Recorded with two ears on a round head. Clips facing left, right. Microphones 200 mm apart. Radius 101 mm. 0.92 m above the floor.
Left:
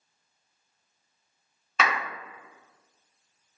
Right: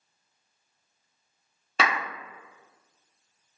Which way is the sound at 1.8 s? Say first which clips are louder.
Even; 30° right (ahead or behind).